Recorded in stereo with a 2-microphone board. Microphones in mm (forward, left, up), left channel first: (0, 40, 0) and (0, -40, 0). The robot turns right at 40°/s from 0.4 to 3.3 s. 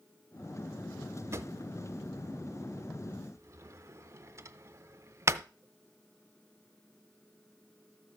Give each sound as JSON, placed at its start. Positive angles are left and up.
{"t": 1.3, "sound": "a drawer", "side_deg": -35, "distance_m": 0.6}